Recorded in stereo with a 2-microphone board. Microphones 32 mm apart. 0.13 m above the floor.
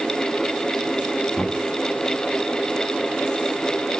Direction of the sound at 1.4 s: 5° left (ahead or behind).